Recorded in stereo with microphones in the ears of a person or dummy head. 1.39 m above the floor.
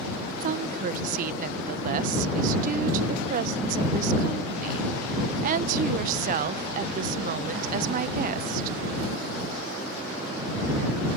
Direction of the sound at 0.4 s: 45° right (ahead or behind).